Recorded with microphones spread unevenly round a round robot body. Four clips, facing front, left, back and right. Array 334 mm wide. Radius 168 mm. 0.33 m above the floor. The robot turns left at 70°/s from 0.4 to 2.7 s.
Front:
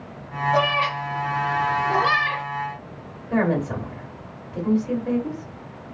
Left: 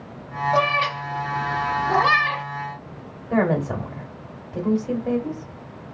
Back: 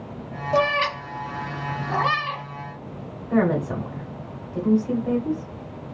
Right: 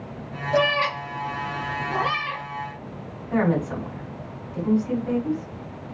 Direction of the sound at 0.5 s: 155° right.